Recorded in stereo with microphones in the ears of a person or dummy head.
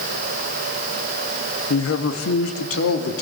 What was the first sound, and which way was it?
A man speaking, 80° left.